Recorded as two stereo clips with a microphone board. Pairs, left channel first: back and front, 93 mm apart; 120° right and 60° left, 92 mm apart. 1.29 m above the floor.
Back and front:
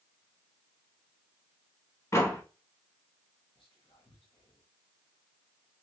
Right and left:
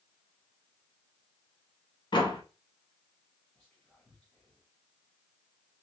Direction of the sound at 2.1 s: 130° right.